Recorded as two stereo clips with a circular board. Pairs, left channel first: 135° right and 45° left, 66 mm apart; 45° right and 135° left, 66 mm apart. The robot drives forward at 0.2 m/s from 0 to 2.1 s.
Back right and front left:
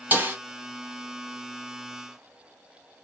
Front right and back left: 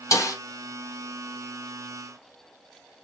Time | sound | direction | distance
0.1 | a snare drum | 15° right | 0.9 m